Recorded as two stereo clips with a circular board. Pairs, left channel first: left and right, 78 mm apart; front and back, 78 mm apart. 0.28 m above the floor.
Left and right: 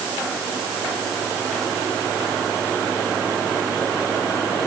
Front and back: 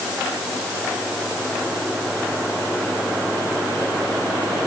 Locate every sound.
Only background noise.